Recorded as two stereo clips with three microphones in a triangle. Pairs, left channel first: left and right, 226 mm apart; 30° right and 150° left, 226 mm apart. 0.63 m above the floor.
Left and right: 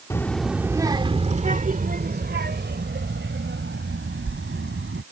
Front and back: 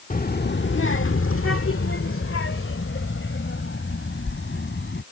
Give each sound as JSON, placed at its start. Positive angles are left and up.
{"t": 0.1, "sound": "a child speaking", "azimuth_deg": 15}